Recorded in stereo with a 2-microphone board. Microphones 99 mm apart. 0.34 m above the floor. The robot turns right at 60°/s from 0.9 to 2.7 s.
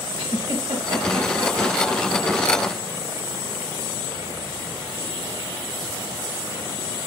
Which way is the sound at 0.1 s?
65° right (ahead or behind).